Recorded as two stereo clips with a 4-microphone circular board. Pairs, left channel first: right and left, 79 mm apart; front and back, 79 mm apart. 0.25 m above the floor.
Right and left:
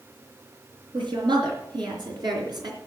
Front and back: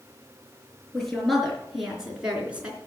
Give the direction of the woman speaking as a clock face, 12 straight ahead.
9 o'clock.